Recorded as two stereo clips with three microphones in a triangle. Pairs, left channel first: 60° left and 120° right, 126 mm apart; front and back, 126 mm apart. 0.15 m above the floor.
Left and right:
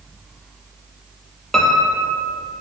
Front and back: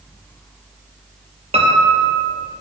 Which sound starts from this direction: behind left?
A piano, at 1.5 s.